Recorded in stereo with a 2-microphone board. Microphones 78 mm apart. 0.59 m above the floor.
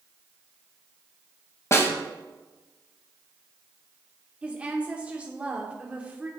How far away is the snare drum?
About 1.2 m.